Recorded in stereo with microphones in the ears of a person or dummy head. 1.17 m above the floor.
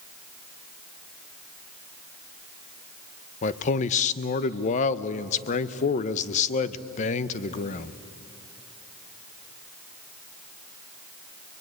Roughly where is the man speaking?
Left.